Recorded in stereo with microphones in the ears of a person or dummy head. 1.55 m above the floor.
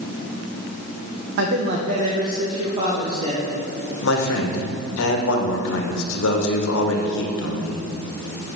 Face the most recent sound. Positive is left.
turn(degrees=75)  # may be behind; listen again after turning